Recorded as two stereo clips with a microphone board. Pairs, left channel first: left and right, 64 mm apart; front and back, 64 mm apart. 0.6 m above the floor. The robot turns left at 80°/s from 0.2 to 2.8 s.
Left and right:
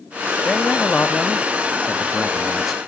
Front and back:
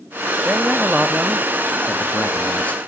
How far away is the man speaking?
About 0.8 m.